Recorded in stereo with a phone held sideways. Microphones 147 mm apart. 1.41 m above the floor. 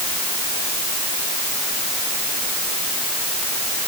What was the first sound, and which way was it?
Only background noise.